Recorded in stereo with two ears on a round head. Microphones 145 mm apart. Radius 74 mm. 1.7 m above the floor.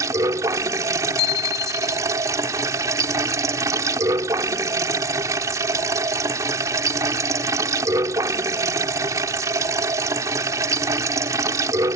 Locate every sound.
0.0 s running water: 20° right (ahead or behind)
1.2 s a bicycle bell: 70° left (ahead or behind)